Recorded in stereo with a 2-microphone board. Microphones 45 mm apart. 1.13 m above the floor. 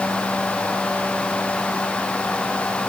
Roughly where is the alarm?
I don't hear an alarm.